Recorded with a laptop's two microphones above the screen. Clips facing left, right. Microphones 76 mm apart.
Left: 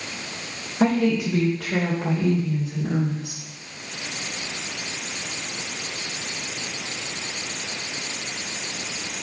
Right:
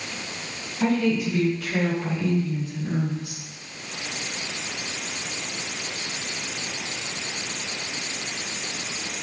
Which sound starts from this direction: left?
A woman speaking, at 0.8 s.